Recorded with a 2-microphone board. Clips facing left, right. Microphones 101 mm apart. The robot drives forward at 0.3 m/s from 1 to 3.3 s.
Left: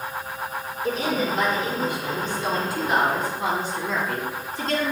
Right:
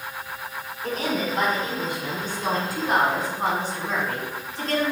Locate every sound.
0.8 s a woman speaking: 45° right (ahead or behind), 1.7 m; by 4.9 s 40° right (ahead or behind), 1.9 m